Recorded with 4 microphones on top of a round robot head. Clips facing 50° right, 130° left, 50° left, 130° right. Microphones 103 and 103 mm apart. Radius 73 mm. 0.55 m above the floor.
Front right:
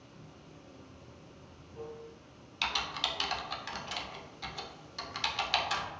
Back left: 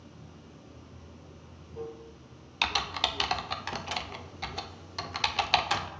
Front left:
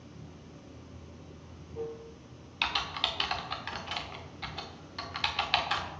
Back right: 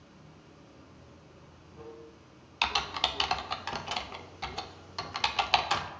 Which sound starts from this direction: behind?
Typing on a keyboard, at 2.6 s.